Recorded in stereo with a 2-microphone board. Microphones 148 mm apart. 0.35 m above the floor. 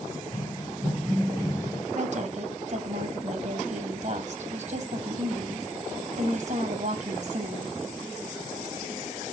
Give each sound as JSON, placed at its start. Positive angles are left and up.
{"t": 0.1, "sound": "running footsteps", "side_deg": 25, "distance_m": 7.5}
{"t": 1.9, "sound": "a woman speaking", "side_deg": -55, "distance_m": 2.5}